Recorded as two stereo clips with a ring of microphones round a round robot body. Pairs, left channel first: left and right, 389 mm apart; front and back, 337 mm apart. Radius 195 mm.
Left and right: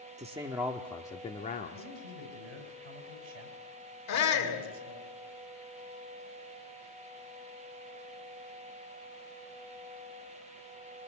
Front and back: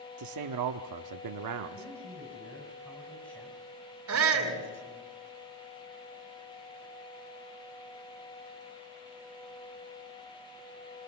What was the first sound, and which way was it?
A man speaking, 160° right.